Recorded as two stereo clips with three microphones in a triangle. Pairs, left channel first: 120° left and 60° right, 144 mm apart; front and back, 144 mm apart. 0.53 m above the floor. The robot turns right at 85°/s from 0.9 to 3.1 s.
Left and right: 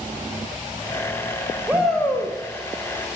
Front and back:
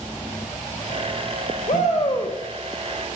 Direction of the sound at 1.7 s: 15° left.